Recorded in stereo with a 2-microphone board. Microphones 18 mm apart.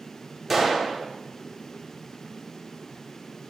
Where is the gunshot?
10° right (ahead or behind), 0.6 m.